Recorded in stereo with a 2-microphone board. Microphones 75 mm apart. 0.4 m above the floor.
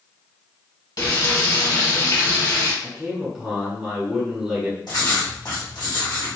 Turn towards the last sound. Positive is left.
turn(degrees=65)  # may be behind; listen again after turning